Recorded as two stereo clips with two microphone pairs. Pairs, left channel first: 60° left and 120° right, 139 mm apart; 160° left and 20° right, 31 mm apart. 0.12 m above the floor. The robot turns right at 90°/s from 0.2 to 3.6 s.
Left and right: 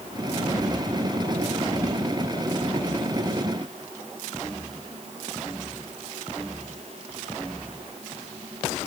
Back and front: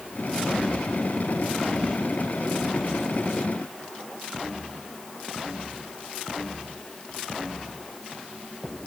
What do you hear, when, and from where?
Only background noise.